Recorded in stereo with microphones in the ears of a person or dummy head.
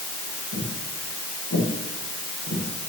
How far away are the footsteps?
About 8.5 m.